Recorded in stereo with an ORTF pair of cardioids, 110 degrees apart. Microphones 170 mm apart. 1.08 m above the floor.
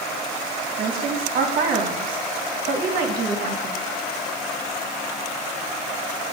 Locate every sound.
0.8 s a woman speaking: 60° right, 1.2 m